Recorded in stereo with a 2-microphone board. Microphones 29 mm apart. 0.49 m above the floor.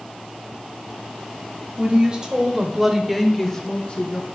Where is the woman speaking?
35° right (ahead or behind), 2.0 m; by 4.2 s 45° left (ahead or behind), 1.1 m.